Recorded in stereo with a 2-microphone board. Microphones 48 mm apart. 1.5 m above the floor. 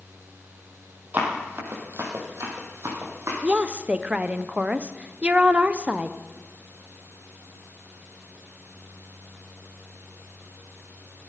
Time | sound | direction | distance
1.1 | running footsteps | 40° right (ahead or behind) | 2.5 m
3.4 | a woman speaking | 25° right (ahead or behind) | 0.6 m